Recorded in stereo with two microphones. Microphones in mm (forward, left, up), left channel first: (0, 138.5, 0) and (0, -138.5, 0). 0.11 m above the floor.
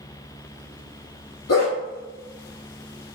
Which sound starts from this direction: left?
A dog barking, at 1.5 s.